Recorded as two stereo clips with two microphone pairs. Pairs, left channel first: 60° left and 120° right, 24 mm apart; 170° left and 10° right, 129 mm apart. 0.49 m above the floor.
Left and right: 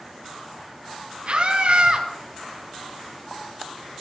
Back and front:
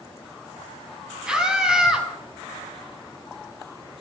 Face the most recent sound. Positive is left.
turn(degrees=-95)